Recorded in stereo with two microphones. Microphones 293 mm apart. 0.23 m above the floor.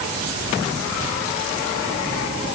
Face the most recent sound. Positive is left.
No sound to turn to.